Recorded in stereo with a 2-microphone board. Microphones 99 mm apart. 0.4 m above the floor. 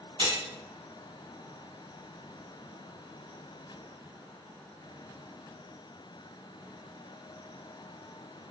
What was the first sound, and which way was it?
Cutlery clinking, 60° right (ahead or behind).